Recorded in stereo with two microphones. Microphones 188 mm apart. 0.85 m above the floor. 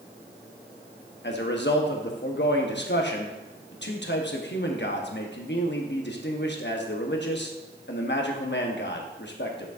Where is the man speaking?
65° left (ahead or behind), 1.0 m.